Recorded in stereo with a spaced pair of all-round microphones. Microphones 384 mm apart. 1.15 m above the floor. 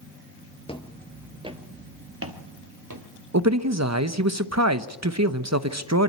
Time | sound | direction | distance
0.7 | footsteps | 15° left (ahead or behind) | 1.2 m
3.3 | a man speaking | 45° right (ahead or behind) | 1.0 m